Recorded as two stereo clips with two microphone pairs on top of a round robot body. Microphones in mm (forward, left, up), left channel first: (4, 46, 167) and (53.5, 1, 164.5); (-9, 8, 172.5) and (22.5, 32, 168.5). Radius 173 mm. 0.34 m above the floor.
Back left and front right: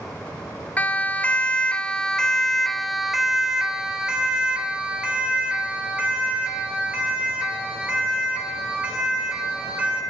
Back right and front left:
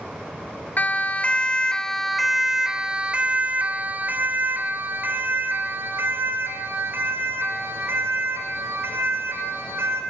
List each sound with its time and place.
0.8 s a siren: 165° right, 2.5 m; by 10.0 s 25° left, 9 m